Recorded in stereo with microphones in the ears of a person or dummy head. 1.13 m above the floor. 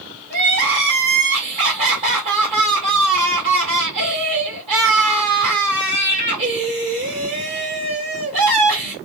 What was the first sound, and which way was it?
Crying, 35° right (ahead or behind).